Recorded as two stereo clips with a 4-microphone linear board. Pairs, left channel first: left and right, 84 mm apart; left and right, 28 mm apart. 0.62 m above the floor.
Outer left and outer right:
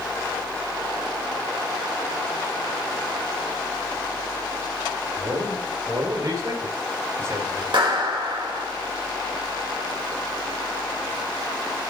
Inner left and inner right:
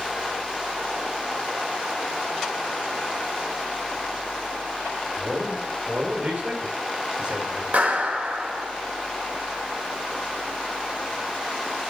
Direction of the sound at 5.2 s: 65° right (ahead or behind).